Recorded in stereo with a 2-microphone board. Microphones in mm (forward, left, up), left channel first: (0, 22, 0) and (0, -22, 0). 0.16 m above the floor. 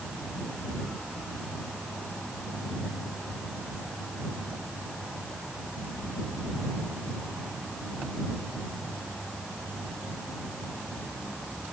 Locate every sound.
Only background noise.